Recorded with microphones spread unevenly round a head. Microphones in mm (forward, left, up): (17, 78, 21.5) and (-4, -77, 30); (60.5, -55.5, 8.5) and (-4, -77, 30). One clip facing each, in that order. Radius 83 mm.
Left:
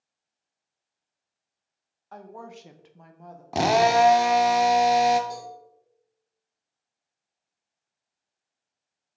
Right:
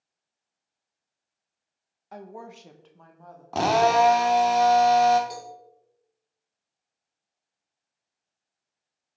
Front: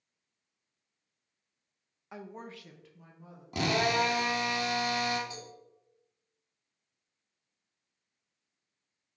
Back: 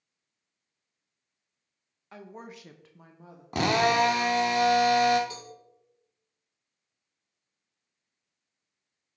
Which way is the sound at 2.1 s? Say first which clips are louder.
Right 1 dB, even; 30° right.